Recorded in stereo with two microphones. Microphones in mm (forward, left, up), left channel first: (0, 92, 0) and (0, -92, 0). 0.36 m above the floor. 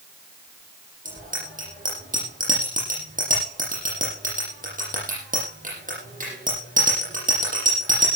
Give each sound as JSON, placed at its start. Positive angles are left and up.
{"t": 1.1, "sound": "a bicycle bell", "side_deg": -45, "distance_m": 9.5}